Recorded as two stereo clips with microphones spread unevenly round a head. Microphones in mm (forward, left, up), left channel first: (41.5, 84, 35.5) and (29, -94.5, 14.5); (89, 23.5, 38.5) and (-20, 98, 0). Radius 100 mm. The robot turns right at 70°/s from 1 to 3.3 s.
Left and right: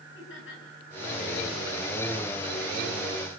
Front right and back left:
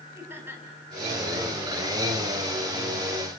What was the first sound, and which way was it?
Laughter, 70° left.